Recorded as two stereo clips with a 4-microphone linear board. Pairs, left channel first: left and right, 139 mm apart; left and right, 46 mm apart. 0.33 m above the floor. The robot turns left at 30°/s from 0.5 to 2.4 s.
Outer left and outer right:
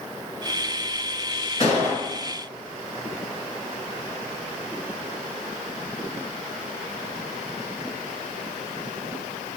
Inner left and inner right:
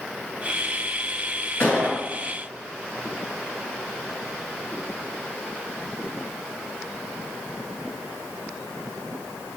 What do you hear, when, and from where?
1.6 s a gunshot: 50° left (ahead or behind), 1.8 m; by 2.0 s 55° left (ahead or behind), 1.8 m